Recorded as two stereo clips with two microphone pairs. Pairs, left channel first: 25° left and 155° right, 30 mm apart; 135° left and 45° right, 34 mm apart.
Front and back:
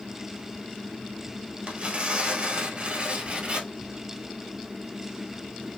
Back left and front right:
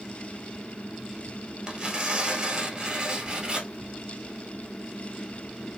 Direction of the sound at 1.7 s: 105° right.